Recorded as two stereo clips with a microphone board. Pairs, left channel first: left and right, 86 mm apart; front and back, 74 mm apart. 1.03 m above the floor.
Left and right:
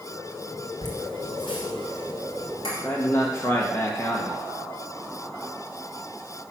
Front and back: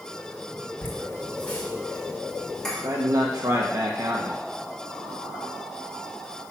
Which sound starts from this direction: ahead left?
Laughter, at 0.8 s.